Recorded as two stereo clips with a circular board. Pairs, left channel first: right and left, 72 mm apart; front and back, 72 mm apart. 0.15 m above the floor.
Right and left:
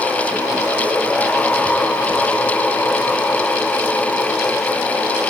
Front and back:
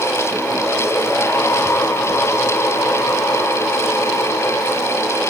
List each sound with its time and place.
Only background noise.